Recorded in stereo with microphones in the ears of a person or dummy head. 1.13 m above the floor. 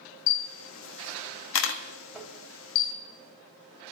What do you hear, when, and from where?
0.3 s a camera shutter: 75° left (ahead or behind), 1.5 m
2.1 s tapping: centre (ahead or behind), 2.5 m